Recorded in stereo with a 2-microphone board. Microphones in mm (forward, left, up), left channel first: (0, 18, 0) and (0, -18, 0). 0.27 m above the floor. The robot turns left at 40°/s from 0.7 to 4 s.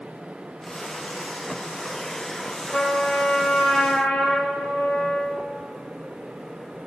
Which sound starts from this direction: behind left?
A trumpet, at 2.7 s.